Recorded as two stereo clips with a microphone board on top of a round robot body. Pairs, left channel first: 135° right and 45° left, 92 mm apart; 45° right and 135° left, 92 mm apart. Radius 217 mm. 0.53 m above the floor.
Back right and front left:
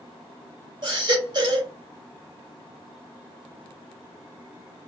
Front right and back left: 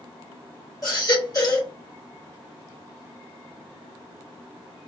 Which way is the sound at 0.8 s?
5° left.